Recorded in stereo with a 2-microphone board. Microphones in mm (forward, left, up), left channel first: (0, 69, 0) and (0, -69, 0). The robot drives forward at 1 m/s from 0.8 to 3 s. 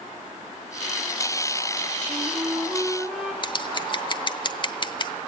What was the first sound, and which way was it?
A flute, 10° right (ahead or behind).